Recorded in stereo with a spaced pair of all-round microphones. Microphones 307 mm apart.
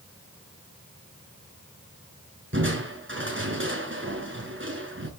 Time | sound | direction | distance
2.5 | crushing | 40° right (ahead or behind) | 5 m